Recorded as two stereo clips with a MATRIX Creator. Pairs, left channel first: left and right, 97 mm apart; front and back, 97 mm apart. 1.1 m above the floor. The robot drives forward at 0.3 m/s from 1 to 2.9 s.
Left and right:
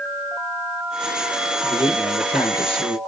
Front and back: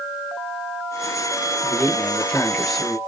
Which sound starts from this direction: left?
A man speaking, at 1.6 s.